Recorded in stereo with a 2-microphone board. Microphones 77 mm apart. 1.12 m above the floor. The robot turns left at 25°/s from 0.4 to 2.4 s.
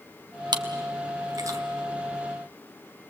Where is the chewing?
70° right (ahead or behind), 1.8 m; by 1.6 s 45° right (ahead or behind), 1.8 m.